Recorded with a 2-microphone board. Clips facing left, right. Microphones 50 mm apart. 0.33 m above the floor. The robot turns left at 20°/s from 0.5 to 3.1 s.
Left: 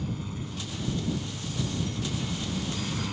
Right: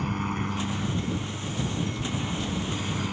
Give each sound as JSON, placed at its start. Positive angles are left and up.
{"t": 0.0, "sound": "a helicopter", "azimuth_deg": -115}